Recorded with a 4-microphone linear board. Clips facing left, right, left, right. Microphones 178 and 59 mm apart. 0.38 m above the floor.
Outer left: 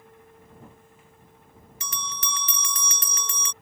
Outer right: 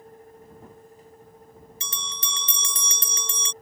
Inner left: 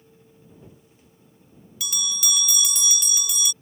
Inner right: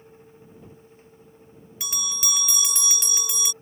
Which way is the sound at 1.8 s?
30° right (ahead or behind).